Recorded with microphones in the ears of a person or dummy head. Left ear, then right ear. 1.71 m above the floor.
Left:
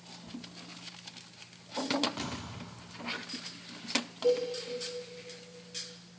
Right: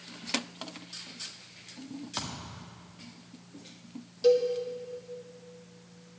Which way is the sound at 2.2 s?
45° right (ahead or behind).